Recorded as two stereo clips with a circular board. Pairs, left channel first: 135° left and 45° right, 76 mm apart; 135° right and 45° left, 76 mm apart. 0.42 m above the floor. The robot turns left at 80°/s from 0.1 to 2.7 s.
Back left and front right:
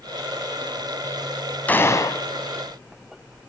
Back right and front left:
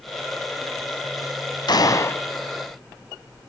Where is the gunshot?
155° right, 1.6 m; by 2.2 s 160° left, 1.6 m.